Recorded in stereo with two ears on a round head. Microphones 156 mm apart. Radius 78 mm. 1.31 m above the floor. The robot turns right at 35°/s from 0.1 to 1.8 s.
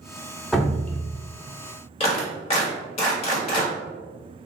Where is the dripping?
5° left (ahead or behind), 0.5 m; by 1.0 s 10° left (ahead or behind), 0.5 m.